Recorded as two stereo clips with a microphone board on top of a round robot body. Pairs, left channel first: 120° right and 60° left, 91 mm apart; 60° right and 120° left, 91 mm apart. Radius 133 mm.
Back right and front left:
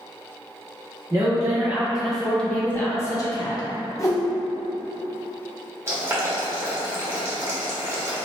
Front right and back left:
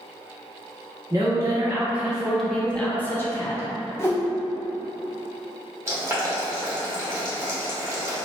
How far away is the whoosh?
About 1.0 m.